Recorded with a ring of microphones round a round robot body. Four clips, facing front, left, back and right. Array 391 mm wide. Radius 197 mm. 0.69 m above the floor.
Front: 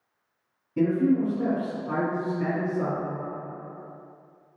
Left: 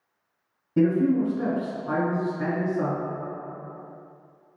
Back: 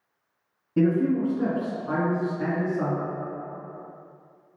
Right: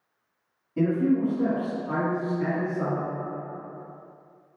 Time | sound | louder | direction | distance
0.8 | a man speaking | left 2 dB, even | 125° left | 1.6 m